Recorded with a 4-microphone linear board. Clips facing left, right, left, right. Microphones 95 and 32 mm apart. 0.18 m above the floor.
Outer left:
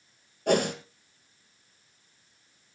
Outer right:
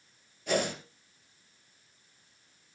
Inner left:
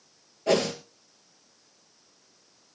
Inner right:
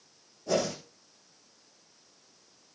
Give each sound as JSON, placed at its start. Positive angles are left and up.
{"t": 0.5, "sound": "a whoosh", "side_deg": 55, "distance_m": 2.5}